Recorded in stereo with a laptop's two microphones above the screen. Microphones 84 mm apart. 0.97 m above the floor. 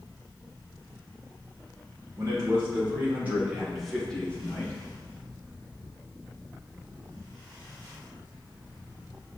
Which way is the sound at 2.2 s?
40° right (ahead or behind).